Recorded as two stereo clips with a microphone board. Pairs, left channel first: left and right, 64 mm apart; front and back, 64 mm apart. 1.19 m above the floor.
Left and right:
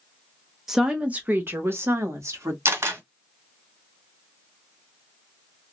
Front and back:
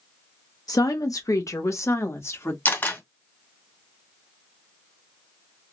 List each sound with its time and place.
0.7 s a woman speaking: 5° right, 0.7 m; by 2.5 s 50° right, 1.6 m
2.6 s a camera shutter: 50° right, 1.6 m